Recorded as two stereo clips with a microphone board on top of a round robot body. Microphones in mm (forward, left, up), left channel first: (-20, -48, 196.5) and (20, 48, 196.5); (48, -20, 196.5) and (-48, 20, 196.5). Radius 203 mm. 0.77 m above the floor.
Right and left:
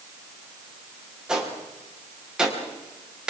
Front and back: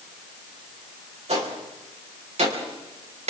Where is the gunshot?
150° left, 4.5 m.